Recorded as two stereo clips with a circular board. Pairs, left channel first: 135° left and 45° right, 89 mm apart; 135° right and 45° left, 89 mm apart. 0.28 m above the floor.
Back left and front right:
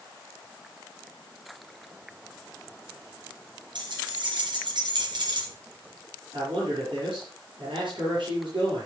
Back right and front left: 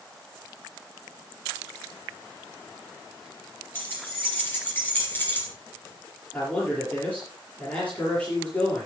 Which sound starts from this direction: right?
A man speaking, at 6.3 s.